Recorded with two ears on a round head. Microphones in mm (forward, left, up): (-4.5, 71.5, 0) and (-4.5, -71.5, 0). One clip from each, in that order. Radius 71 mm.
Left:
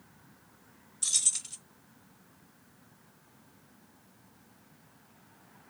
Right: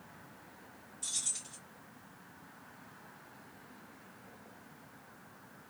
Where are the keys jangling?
50° left (ahead or behind), 0.6 m.